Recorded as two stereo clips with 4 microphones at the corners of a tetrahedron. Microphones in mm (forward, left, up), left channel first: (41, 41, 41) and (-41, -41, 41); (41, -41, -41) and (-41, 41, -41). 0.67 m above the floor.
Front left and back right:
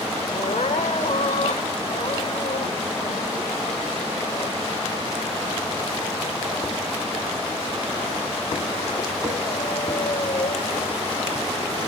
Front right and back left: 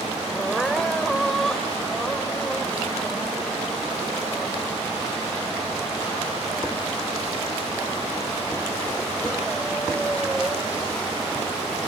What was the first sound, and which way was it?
Crying, 40° left.